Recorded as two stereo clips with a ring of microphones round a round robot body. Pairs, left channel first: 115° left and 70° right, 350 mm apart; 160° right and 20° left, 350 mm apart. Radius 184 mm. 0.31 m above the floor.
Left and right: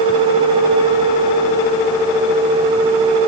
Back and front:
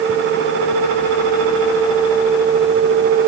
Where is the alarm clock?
I don't hear an alarm clock.